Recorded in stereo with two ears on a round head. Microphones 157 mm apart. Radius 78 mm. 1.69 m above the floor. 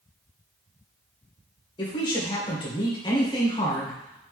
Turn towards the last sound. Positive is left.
turn(degrees=30)  # may be behind; listen again after turning